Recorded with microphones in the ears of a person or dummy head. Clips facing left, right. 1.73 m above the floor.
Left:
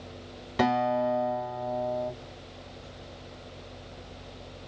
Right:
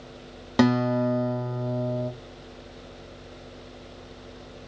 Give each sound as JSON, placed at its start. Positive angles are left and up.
{"t": 0.6, "sound": "a guitar", "side_deg": -60, "distance_m": 1.1}